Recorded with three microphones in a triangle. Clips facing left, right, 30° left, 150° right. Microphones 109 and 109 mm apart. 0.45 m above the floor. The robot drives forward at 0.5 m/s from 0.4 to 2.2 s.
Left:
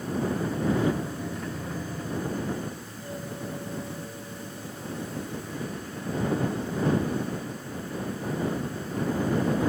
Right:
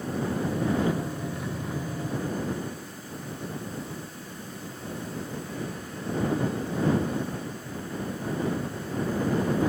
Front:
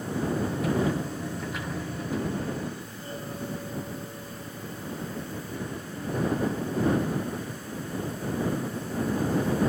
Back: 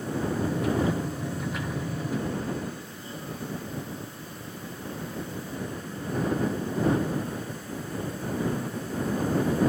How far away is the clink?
I don't hear a clink.